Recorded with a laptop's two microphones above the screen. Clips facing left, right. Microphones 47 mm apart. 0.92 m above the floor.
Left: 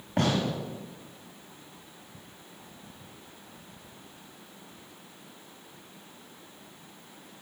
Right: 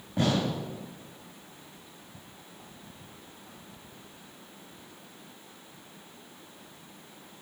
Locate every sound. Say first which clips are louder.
0.2 s a gunshot: even; 60° left (ahead or behind), 6.5 m